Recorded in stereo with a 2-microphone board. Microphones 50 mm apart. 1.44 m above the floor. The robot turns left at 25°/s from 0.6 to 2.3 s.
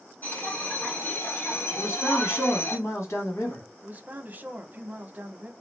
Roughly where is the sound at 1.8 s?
Left.